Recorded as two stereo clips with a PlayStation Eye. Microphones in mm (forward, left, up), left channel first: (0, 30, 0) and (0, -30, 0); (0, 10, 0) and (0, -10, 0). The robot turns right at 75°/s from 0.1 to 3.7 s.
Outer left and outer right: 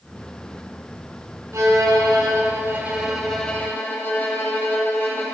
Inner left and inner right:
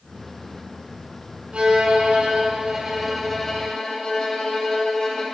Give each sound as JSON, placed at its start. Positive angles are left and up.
{"t": 1.5, "sound": "a violin", "azimuth_deg": -125, "distance_m": 3.5}